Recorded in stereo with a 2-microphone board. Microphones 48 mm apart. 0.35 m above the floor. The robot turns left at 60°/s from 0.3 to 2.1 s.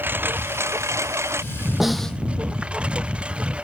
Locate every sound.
0.0 s a lawn mower: 45° right; by 3.6 s 155° right
1.8 s a snare drum: 10° right (ahead or behind); by 2.2 s 10° left (ahead or behind)